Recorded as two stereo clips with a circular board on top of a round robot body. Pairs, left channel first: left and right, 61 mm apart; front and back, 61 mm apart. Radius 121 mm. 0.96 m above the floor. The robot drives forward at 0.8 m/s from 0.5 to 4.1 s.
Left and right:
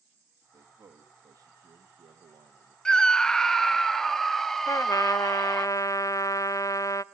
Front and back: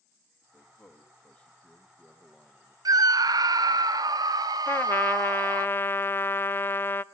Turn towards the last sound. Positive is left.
turn(degrees=55)